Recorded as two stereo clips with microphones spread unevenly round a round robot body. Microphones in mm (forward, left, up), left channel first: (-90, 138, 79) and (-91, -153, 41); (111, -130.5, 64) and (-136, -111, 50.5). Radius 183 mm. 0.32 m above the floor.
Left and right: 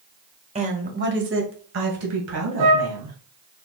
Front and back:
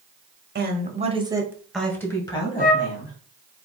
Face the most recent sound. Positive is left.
turn(degrees=-60)